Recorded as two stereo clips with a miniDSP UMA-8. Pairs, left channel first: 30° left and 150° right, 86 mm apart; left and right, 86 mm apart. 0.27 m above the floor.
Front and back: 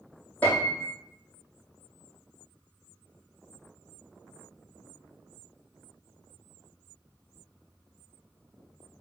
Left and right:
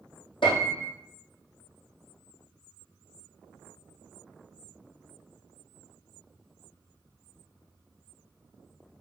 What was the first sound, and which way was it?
A piano, 100° left.